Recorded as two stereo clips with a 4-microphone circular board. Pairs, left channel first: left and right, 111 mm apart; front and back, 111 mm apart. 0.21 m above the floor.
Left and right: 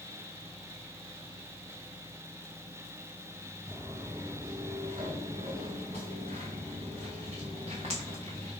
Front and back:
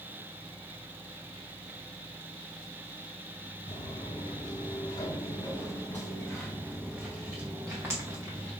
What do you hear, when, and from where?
3.7 s footsteps: 35° right, 1.8 m; by 8.5 s 120° right, 1.9 m